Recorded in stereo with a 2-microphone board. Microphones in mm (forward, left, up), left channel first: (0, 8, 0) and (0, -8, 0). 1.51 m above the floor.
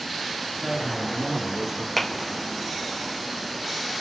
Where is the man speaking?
45° right (ahead or behind), 3 m; by 1.9 s 50° right (ahead or behind), 1.7 m.